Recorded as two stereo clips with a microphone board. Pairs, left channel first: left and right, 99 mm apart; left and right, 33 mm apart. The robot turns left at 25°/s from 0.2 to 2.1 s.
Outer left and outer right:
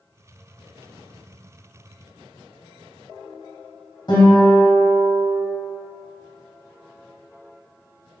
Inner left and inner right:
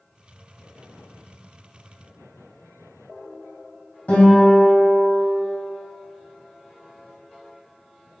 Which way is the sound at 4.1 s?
55° left (ahead or behind).